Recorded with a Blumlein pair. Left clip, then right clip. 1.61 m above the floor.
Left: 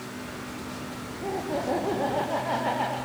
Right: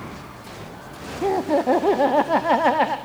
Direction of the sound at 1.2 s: 60° right.